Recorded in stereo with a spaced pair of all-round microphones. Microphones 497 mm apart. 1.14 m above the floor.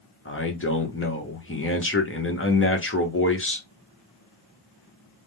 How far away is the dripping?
No dripping in this recording.